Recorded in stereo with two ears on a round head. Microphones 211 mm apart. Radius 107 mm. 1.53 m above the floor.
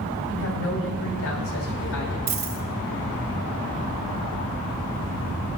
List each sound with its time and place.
0.3 s a woman speaking: 60° left (ahead or behind), 7 m
2.3 s a dropped coin: 40° right (ahead or behind), 2 m